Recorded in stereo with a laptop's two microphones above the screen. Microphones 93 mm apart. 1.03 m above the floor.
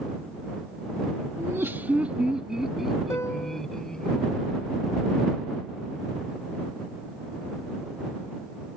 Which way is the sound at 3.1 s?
30° left (ahead or behind).